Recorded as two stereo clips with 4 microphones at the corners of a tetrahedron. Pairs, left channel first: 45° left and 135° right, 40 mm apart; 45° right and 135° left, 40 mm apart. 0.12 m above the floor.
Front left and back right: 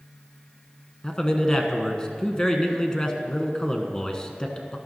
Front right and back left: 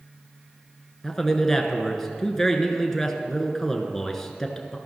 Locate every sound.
1.0 s a man speaking: 15° left, 1.1 m